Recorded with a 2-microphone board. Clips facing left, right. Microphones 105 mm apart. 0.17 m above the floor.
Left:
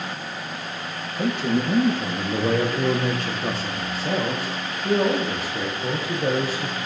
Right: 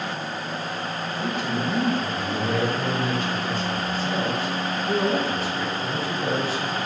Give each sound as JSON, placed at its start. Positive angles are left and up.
{"t": 1.2, "sound": "a man speaking", "side_deg": 70, "distance_m": 4.5}